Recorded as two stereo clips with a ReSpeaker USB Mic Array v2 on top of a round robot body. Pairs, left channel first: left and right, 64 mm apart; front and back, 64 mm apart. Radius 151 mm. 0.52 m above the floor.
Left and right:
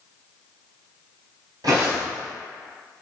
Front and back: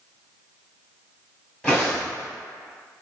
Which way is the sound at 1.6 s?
80° right.